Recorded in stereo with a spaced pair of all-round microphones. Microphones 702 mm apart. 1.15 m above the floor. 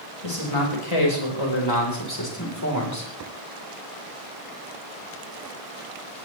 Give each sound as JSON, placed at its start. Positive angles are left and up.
{"t": 0.2, "sound": "a man speaking", "side_deg": 50, "distance_m": 5.0}